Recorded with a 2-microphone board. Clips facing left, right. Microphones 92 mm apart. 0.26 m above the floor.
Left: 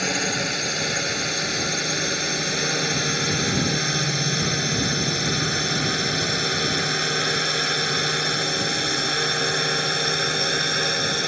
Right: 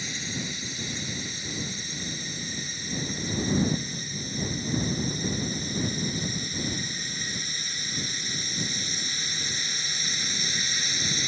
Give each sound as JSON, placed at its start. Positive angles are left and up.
{"t": 0.0, "sound": "a drone", "side_deg": 65}